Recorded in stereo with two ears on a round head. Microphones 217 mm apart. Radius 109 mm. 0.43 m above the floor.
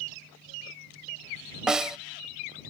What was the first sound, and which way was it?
A snare drum, 5° right (ahead or behind).